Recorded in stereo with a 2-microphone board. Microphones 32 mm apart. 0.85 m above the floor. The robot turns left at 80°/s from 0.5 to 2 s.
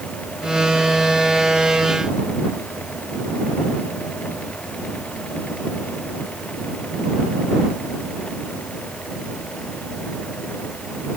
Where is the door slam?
I don't hear a door slam.